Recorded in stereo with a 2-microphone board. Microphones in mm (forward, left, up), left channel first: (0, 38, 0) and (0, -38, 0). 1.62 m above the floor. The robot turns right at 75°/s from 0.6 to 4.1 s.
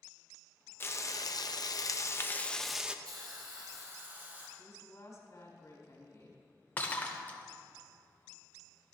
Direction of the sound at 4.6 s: 45° left (ahead or behind).